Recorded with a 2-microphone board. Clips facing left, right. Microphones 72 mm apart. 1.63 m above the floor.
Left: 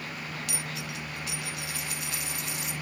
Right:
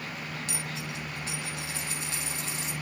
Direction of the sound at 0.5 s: 30° right (ahead or behind).